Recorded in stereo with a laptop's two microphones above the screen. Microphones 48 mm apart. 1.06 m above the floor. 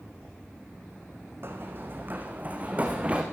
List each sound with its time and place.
1.4 s running footsteps: 50° right (ahead or behind), 3.5 m; by 3.2 s 25° right (ahead or behind), 5 m